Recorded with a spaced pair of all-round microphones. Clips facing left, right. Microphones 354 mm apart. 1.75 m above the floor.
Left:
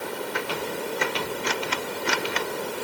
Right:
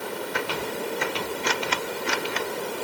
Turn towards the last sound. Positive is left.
No sound to turn to.